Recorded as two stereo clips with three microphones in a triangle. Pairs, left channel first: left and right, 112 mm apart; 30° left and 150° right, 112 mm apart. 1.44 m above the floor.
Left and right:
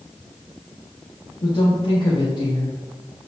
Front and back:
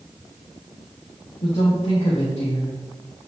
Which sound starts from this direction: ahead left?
A woman speaking, at 1.4 s.